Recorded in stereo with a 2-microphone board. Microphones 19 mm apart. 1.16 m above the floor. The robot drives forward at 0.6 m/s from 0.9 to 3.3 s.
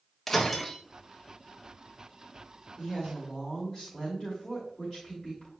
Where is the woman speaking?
30° left (ahead or behind), 2.5 m; by 5.5 s 25° left (ahead or behind), 2.5 m.